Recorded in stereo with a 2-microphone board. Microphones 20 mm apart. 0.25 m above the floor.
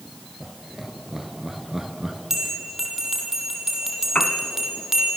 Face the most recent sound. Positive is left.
turn(degrees=60)  # may be behind; listen again after turning